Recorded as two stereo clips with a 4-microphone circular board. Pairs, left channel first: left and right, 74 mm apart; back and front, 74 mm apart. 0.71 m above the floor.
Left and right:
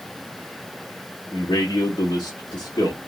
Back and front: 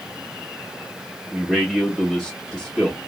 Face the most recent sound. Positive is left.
turn(degrees=90)